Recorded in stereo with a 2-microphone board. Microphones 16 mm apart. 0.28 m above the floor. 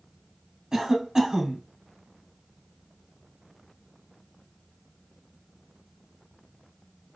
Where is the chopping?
I don't hear chopping.